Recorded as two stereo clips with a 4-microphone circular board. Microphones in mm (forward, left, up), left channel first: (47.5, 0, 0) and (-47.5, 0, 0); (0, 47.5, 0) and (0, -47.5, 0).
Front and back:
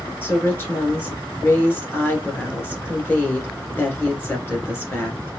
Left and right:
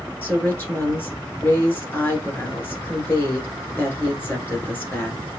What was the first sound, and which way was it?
A woman speaking, 40° left.